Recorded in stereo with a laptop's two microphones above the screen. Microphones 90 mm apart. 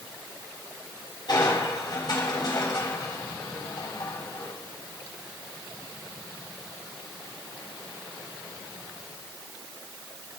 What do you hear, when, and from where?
1.3 s crushing: 50° left (ahead or behind), 6 m